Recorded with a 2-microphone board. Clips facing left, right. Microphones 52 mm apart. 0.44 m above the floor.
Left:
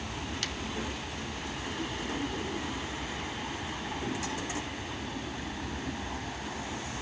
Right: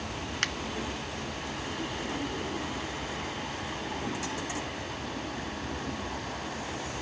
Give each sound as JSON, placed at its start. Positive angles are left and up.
{"t": 0.4, "sound": "a finger snap", "side_deg": -50, "distance_m": 0.8}